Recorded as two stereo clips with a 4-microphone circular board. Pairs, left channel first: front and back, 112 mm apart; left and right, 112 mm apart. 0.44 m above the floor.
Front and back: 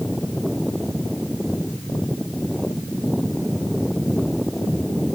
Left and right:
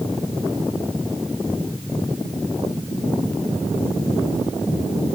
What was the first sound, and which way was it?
Only background noise.